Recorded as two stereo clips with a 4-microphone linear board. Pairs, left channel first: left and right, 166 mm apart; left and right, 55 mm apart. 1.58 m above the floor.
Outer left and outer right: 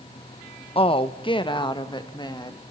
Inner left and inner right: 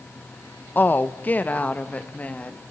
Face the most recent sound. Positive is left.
turn(degrees=25)  # may be behind; listen again after turning